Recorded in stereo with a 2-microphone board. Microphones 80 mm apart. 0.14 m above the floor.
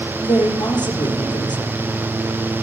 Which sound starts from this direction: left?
A woman speaking, at 0.2 s.